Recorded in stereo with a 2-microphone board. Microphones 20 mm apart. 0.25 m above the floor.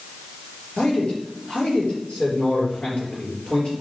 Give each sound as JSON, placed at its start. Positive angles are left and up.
{"t": 0.8, "sound": "a man speaking", "side_deg": 75, "distance_m": 4.0}